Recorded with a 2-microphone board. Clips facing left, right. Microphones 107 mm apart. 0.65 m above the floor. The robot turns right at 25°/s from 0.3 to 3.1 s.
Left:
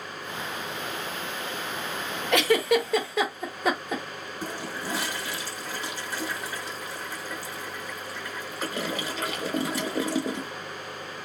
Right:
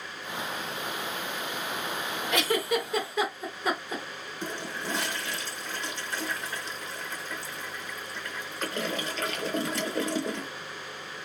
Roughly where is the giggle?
Left.